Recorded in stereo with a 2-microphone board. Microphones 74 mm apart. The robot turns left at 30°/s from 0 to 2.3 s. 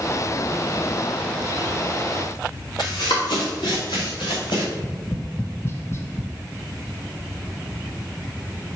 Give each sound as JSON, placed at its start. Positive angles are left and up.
{"t": 2.8, "sound": "running footsteps", "side_deg": 75, "distance_m": 2.5}
{"t": 4.7, "sound": "tapping", "side_deg": 35, "distance_m": 0.7}